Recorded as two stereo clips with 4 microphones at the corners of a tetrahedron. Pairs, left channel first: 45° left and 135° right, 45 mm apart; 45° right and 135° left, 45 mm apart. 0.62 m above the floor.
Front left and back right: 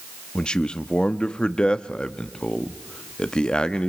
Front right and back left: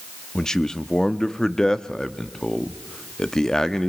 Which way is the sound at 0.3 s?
10° left.